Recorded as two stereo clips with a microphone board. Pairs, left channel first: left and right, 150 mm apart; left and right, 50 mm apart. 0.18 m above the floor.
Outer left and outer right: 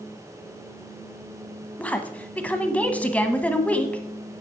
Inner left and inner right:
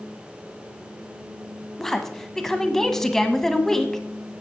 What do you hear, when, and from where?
1.8 s a woman speaking: 10° left (ahead or behind), 1.1 m